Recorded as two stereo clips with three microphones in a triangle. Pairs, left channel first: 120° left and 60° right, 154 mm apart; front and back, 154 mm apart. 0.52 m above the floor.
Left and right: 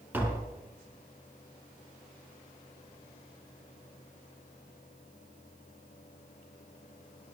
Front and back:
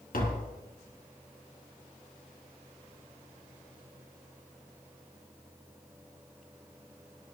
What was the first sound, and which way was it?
Tapping, 15° left.